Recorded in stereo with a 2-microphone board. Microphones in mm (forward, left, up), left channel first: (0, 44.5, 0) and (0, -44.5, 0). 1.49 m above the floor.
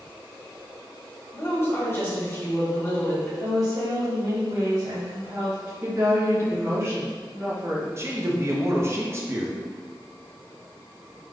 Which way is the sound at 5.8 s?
30° right (ahead or behind).